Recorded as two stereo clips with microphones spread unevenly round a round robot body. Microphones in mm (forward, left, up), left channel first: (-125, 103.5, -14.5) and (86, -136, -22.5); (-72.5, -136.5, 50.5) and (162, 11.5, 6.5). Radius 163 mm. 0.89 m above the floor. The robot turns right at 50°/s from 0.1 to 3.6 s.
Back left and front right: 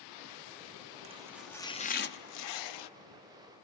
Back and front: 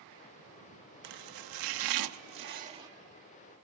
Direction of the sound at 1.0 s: 20° left.